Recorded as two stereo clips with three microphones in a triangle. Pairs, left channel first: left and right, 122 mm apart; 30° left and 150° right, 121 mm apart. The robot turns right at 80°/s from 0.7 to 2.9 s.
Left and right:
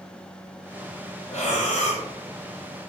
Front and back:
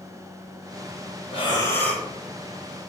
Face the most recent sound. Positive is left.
turn(degrees=-165)